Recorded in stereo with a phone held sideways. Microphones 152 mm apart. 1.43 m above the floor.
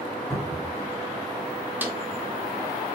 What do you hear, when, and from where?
0.3 s a cupboard door: centre (ahead or behind), 1.5 m
1.8 s a snare drum: 10° right (ahead or behind), 0.6 m